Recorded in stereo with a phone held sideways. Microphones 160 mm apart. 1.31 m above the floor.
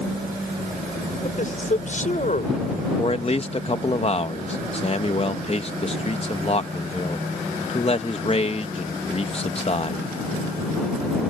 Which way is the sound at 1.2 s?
50° left (ahead or behind).